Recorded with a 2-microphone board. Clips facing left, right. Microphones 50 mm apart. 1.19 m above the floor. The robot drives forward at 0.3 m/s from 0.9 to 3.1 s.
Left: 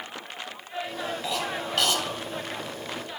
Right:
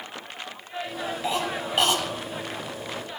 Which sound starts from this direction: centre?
A cough, at 1.2 s.